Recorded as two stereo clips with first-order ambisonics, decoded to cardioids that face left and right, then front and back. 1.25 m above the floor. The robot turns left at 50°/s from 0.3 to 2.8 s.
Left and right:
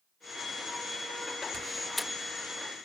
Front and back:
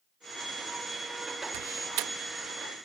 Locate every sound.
1.5 s a door slam: 160° right; by 2.9 s 135° left